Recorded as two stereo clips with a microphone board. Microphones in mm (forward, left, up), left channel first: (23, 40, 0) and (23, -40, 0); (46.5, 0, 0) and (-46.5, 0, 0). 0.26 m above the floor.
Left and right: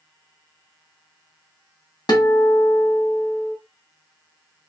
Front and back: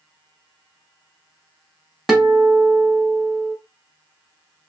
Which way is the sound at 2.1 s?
100° left.